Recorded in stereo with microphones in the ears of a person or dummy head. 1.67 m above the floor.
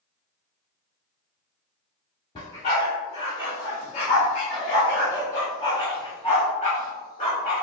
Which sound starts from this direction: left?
A dog barking, at 2.4 s.